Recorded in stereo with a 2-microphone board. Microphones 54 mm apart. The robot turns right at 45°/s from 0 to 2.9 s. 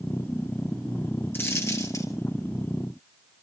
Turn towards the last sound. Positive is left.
turn(degrees=110)